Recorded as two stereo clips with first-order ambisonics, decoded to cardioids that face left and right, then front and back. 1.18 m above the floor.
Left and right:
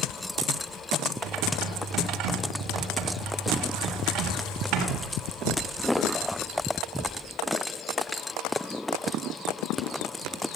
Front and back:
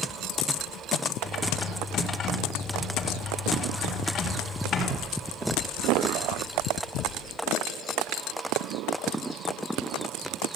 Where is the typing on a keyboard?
60° right, 3.5 m.